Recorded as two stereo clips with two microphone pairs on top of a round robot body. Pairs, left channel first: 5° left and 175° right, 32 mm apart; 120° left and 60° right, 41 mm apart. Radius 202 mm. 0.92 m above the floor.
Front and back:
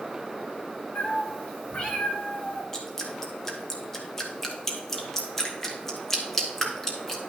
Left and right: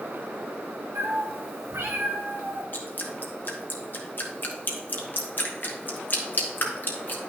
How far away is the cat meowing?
About 1.3 m.